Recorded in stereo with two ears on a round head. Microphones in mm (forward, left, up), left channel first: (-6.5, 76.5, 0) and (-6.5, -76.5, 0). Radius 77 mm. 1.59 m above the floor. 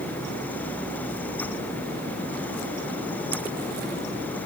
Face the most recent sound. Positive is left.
No sound to turn to.